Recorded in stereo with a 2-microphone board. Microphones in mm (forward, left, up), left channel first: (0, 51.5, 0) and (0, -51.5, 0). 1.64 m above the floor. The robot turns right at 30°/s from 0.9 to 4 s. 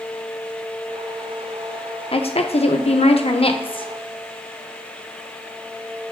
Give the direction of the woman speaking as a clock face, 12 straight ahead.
10 o'clock.